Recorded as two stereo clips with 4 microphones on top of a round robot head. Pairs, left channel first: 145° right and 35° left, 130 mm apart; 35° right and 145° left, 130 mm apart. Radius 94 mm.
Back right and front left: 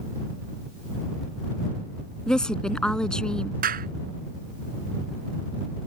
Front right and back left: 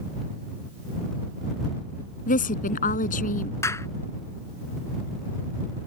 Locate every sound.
2.3 s a woman speaking: 60° right
3.6 s a clap: 35° left